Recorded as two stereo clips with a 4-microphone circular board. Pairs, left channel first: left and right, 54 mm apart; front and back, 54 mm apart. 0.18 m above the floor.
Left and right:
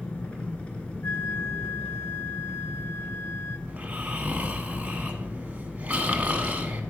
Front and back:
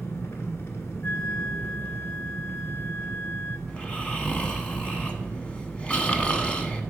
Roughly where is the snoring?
Ahead right.